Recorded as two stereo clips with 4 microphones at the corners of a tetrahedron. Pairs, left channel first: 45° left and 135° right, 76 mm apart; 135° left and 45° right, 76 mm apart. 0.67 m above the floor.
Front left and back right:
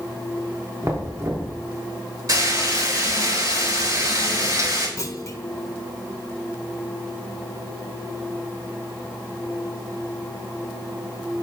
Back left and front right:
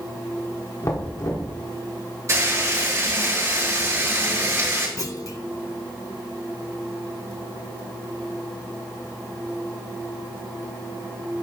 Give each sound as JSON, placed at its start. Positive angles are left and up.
{"t": 0.8, "sound": "knocking", "azimuth_deg": 175, "distance_m": 1.0}
{"t": 2.3, "sound": "frying", "azimuth_deg": -95, "distance_m": 3.5}
{"t": 5.0, "sound": "a clunk", "azimuth_deg": 90, "distance_m": 0.6}